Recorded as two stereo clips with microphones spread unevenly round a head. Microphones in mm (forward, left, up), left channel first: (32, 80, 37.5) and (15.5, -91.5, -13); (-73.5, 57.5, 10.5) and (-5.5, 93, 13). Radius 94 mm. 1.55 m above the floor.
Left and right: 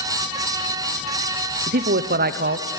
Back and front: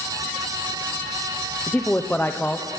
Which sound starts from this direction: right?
A man speaking, at 1.7 s.